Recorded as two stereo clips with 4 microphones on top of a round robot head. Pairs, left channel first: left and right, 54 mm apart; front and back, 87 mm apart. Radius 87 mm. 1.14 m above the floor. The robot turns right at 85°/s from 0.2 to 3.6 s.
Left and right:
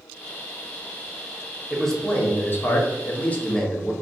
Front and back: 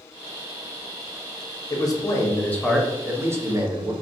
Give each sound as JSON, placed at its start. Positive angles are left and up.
{"t": 1.7, "sound": "a man speaking", "azimuth_deg": -5, "distance_m": 0.7}